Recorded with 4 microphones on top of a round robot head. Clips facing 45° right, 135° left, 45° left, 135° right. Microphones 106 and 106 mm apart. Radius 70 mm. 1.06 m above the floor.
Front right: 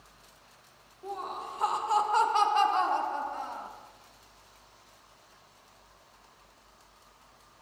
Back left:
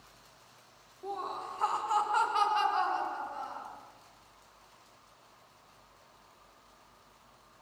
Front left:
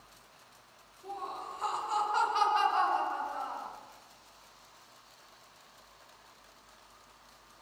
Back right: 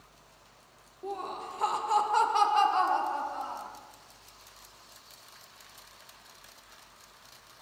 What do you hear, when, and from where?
1.0 s laughter: 145° right, 1.6 m; by 3.7 s 75° right, 3 m